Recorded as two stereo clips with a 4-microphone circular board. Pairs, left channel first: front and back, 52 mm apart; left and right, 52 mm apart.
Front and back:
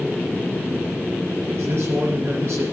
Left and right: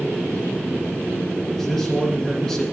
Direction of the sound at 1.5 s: 165° left.